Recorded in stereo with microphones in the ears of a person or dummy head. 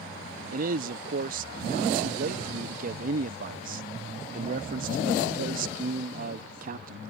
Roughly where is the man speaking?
Right.